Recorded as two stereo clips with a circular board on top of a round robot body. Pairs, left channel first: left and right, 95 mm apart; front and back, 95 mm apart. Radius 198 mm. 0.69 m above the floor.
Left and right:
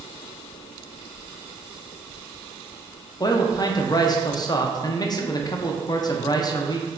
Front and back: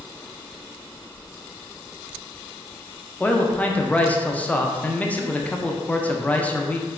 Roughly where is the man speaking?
Left.